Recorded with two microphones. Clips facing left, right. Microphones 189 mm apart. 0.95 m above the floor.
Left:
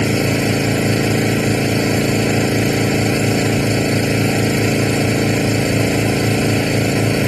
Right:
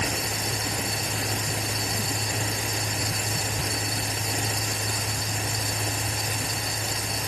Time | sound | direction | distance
0.0 | an engine running | 90° left | ?